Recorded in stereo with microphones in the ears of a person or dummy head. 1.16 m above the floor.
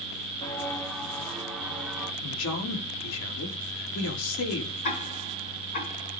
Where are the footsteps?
20° left (ahead or behind), 1.7 m; by 2.1 s 10° right (ahead or behind), 2.5 m.